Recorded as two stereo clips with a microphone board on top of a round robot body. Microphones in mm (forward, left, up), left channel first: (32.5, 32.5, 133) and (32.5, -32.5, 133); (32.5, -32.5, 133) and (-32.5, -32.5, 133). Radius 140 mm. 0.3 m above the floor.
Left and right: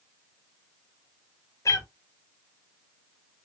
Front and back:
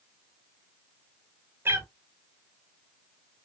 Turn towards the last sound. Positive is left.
turn(degrees=130)